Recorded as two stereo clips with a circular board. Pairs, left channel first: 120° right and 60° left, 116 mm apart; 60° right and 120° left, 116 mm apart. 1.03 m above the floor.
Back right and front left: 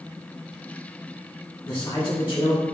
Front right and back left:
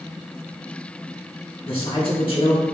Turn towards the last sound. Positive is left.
turn(degrees=-90)